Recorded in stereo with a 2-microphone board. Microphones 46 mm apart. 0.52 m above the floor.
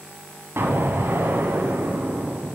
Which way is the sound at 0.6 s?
65° right (ahead or behind).